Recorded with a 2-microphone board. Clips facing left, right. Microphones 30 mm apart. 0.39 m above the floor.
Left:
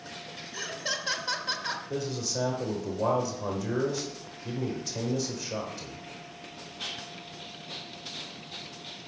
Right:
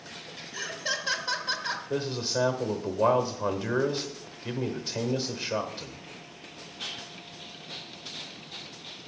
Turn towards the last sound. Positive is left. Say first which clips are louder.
# right 3 dB
turn(degrees=-40)  # may be behind; listen again after turning